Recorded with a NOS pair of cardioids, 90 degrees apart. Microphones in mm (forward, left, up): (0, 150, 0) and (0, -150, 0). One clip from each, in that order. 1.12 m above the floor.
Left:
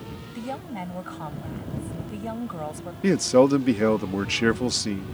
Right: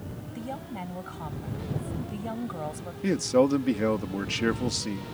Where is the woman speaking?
35° left; by 2.9 s 15° left.